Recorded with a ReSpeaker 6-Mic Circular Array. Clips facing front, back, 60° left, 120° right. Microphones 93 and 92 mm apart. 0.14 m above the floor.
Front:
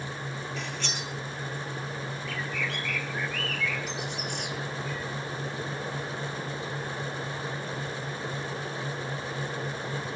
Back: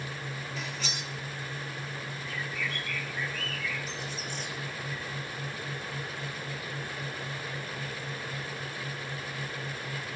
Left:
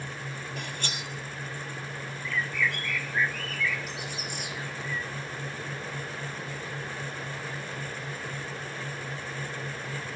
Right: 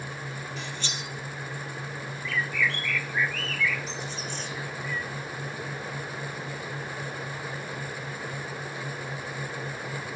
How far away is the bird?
About 1.3 m.